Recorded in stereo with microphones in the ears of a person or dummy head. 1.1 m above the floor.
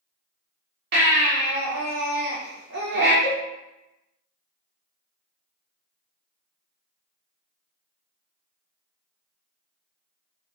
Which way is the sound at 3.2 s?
45° right (ahead or behind).